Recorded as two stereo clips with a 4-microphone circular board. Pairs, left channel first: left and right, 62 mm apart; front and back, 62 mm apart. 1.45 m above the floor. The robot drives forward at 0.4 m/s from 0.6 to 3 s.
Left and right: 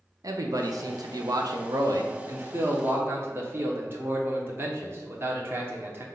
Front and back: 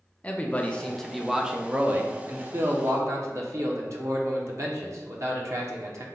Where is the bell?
I don't hear a bell.